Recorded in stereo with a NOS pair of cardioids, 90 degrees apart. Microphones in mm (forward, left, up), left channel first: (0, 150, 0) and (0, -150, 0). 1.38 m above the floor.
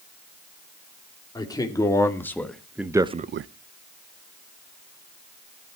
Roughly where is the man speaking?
Ahead.